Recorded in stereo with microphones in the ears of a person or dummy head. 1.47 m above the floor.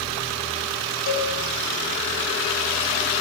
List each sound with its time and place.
1.1 s a cowbell: 75° left (ahead or behind), 8.5 m